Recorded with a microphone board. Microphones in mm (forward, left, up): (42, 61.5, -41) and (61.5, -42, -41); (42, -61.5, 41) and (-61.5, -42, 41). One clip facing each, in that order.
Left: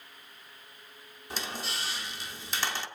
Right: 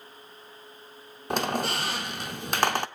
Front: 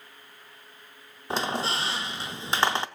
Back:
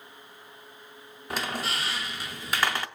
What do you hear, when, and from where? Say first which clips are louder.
1.3 s a squeak: right 11 dB, front 3 dB; 70° right, 0.8 m